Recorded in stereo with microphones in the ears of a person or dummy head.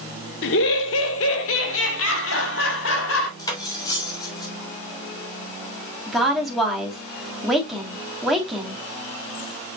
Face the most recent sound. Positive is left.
turn(degrees=-5)  # may be behind; listen again after turning